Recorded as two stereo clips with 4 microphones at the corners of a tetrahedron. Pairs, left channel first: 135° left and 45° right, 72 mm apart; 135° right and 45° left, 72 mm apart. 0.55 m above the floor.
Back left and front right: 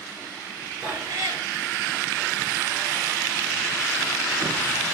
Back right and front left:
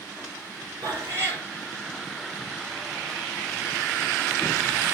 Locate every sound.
0.8 s a cat meowing: 5° right, 2.5 m